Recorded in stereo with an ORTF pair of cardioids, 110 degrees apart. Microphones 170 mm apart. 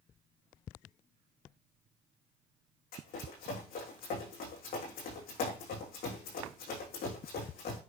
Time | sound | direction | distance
2.9 | running footsteps | 65° left | 6 m